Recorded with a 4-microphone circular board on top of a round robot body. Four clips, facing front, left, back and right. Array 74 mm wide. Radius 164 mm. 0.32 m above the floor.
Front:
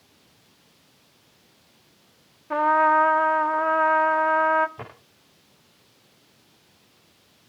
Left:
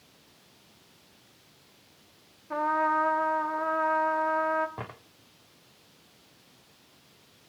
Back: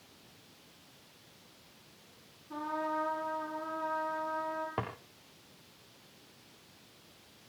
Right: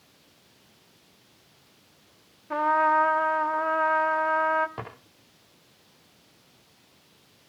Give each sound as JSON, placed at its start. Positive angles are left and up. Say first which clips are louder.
{"t": 2.5, "sound": "a trumpet", "louder": "right 4 dB, front 17 dB", "azimuth_deg": -15, "distance_m": 1.1}
{"t": 4.8, "sound": "a drawer", "louder": "right 2 dB, back 3 dB", "azimuth_deg": -165, "distance_m": 7.5}